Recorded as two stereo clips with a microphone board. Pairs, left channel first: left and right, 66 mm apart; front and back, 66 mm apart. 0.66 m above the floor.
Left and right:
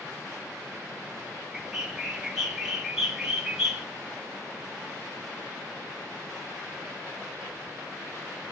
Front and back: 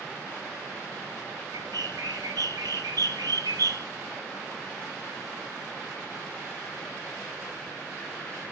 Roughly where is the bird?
Behind.